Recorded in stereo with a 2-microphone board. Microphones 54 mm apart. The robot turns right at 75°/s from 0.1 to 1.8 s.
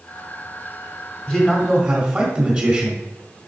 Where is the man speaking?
150° left, 2 m; by 3.0 s 170° right, 2 m.